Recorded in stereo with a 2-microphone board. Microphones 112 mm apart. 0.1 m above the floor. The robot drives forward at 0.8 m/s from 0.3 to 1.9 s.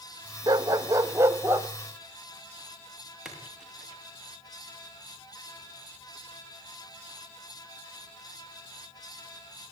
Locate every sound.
0.5 s a dog barking: 35° right (ahead or behind), 0.7 m; by 1.7 s 15° right (ahead or behind), 1.4 m
3.2 s a splash: 5° right (ahead or behind), 7.5 m